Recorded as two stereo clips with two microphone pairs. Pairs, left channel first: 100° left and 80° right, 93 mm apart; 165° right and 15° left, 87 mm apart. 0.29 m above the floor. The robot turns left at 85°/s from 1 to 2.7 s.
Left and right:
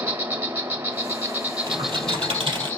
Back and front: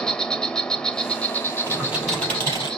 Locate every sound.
0.0 s an insect: 90° right, 0.9 m; by 2.8 s 125° left, 0.9 m
1.7 s typing on a keyboard: 40° right, 4 m; by 2.7 s 130° right, 4 m